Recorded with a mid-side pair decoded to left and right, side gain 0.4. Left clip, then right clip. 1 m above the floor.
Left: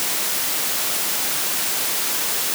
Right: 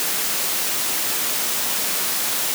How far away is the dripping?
I don't hear dripping.